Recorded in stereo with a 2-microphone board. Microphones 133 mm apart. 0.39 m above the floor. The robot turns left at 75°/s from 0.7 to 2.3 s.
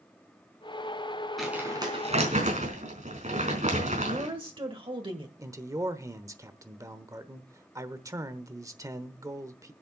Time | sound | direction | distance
1.4 | crumpling | straight ahead | 4.5 m
4.1 | a woman speaking | 40° right (ahead or behind) | 1.5 m
5.4 | a man speaking | 25° right (ahead or behind) | 1.0 m